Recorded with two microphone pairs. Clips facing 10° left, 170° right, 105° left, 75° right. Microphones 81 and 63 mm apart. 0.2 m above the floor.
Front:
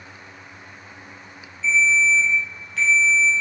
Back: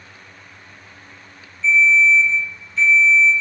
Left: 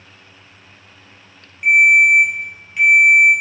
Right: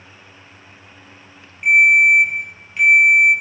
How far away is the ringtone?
About 1.8 m.